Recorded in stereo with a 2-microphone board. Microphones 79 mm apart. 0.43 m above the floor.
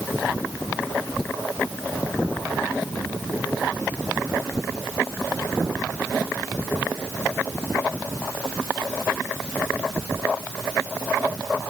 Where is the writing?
I don't hear writing.